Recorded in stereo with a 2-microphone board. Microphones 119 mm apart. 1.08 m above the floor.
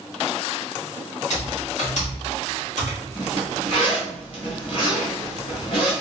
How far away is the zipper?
About 1.4 m.